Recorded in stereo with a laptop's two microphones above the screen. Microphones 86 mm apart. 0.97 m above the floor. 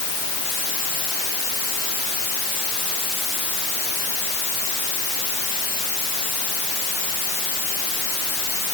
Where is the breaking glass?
No breaking glass in this recording.